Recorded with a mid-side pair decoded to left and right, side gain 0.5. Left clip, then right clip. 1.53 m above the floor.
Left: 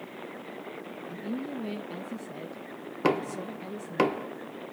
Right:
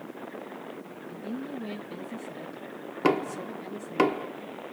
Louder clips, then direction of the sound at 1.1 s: Even; 40° left.